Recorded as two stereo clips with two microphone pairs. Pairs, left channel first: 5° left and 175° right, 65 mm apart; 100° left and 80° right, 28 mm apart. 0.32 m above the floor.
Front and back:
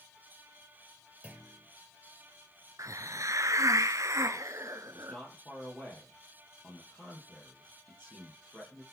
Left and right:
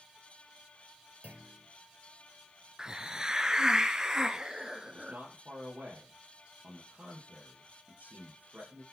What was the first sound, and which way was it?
A clunk, 105° right.